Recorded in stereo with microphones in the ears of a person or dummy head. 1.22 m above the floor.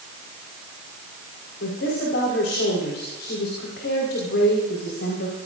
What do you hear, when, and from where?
1.6 s a woman speaking: 70° left (ahead or behind), 5 m